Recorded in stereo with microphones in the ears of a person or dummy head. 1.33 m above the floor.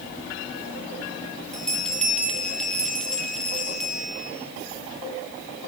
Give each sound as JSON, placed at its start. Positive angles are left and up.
{"t": 1.5, "sound": "a bell", "side_deg": 5, "distance_m": 1.2}